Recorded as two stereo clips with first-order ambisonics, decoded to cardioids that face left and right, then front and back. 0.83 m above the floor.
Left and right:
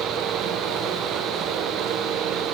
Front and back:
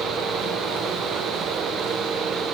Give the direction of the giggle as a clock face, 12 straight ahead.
No giggle in this recording.